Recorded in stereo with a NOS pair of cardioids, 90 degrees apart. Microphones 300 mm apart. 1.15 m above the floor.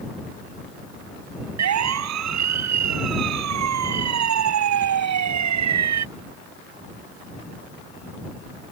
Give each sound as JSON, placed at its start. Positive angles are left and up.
{"t": 1.6, "sound": "a siren", "azimuth_deg": -65}